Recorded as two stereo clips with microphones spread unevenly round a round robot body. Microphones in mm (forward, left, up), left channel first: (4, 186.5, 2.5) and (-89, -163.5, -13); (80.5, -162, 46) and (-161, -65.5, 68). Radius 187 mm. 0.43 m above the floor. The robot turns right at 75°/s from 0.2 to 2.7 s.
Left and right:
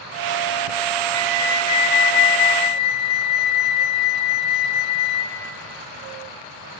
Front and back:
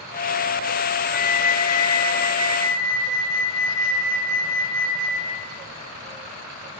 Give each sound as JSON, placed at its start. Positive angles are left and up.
{"t": 1.1, "sound": "a flute", "azimuth_deg": -15, "distance_m": 1.5}